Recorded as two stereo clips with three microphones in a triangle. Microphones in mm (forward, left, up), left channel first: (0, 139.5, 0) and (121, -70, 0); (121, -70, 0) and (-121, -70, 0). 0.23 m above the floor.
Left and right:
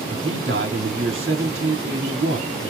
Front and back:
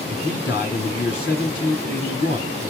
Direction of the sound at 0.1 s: 35° right.